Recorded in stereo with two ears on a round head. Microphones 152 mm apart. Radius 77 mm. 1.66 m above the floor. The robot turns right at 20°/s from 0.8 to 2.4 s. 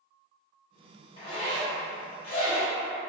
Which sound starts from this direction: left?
A zipper, at 1.2 s.